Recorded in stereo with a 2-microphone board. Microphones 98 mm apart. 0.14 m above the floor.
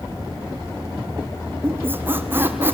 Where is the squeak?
20° right (ahead or behind), 1.1 m.